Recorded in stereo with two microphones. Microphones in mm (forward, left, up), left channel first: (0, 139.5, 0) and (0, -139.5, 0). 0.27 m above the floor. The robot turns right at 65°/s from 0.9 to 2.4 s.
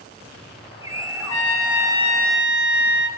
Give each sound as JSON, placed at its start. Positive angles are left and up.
{"t": 1.2, "sound": "a trumpet", "azimuth_deg": 105, "distance_m": 0.7}